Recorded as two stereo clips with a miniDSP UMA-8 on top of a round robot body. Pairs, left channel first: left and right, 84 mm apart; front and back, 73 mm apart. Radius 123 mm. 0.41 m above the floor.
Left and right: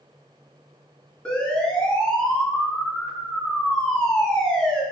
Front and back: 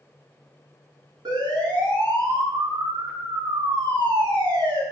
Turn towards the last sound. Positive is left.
turn(degrees=170)